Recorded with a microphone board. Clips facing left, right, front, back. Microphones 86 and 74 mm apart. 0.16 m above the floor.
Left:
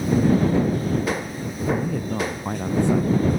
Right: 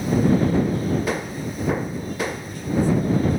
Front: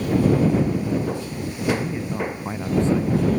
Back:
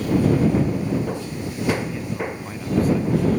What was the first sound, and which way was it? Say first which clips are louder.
A man speaking: left 6 dB, front 4 dB; 65° left.